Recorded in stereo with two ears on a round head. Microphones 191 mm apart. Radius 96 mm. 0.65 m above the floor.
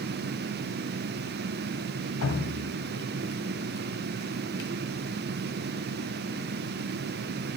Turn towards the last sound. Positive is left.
turn(degrees=80)